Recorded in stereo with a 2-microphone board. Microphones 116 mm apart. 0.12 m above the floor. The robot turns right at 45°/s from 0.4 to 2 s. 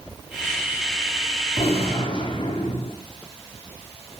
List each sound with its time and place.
1.6 s a gunshot: 65° left (ahead or behind), 1.6 m; by 3.0 s 45° left (ahead or behind), 1.6 m